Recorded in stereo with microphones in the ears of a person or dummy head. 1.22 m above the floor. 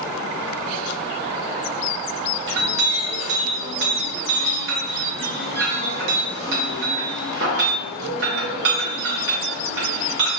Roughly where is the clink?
Right.